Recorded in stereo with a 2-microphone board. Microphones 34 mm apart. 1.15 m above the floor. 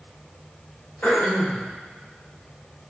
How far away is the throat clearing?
About 2 m.